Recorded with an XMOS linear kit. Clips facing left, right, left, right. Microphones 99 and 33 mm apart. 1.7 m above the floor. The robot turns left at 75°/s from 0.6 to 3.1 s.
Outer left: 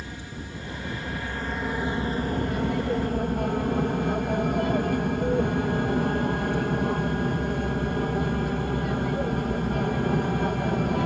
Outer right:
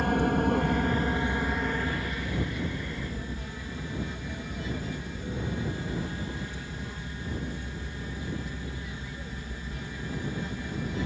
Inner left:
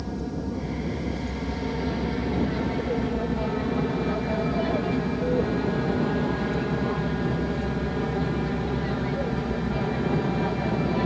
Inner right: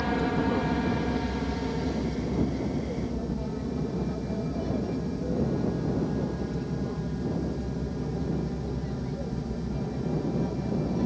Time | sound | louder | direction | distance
0.0 | an aircraft | outer right 14 dB, inner right 5 dB | 65° right (ahead or behind) | ?